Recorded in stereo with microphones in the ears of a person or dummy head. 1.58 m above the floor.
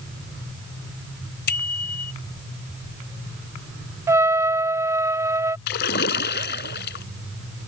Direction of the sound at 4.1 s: 20° right (ahead or behind).